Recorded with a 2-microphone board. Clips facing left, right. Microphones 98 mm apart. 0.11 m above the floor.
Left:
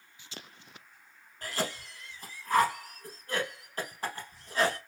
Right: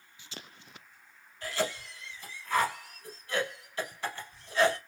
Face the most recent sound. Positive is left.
turn(degrees=40)  # may be behind; listen again after turning